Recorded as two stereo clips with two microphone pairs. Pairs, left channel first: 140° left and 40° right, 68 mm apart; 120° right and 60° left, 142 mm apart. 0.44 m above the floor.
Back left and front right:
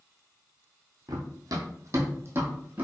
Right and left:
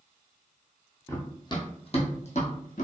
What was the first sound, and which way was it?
Running footsteps, 50° right.